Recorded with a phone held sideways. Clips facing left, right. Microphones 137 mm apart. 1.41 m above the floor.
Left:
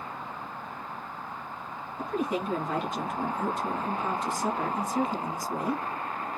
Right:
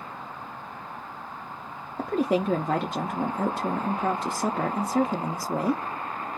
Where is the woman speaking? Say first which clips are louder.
Right 6 dB; 70° right (ahead or behind), 0.6 m.